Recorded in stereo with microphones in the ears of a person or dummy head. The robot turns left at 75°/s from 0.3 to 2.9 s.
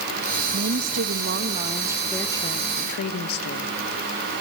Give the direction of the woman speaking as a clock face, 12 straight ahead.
2 o'clock.